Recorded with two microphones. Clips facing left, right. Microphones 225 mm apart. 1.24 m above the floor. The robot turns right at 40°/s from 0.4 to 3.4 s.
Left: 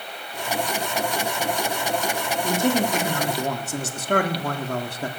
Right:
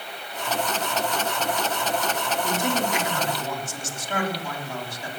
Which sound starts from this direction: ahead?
A man speaking, at 2.4 s.